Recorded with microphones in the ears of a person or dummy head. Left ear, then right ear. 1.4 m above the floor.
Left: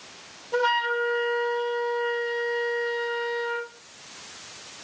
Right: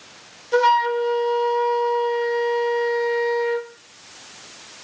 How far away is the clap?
I don't hear a clap.